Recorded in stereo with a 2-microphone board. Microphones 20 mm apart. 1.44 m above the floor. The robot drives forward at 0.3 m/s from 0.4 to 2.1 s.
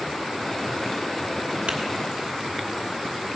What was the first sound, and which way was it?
Tapping, 65° right (ahead or behind).